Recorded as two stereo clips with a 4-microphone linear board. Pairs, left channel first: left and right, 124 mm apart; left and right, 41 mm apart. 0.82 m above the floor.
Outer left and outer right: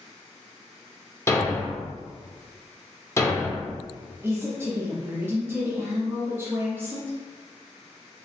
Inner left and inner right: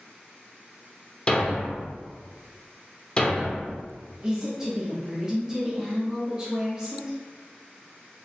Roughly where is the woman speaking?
Centre.